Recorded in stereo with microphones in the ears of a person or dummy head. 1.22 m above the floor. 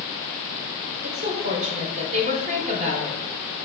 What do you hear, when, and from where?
1.0 s a woman speaking: 40° right (ahead or behind), 1.0 m